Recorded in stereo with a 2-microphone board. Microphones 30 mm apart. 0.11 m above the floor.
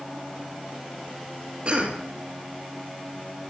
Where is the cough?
40° right (ahead or behind), 3 m.